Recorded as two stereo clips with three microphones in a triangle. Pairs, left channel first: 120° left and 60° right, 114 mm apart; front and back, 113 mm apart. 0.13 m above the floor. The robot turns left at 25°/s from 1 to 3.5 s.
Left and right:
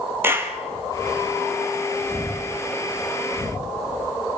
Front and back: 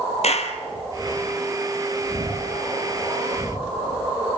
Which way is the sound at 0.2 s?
10° left.